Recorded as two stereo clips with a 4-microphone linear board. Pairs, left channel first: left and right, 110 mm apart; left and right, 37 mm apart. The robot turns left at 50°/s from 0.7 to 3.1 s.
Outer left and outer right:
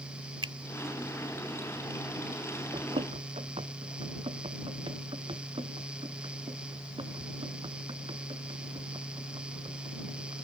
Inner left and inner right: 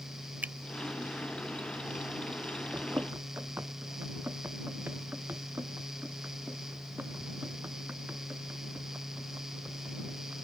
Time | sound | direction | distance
0.4 | a finger snap | 50° right (ahead or behind) | ?
2.7 | running footsteps | 60° right (ahead or behind) | ?